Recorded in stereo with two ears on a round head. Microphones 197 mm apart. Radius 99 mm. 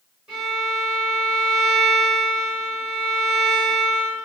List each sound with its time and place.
0.3 s a violin: 5° right (ahead or behind), 1.5 m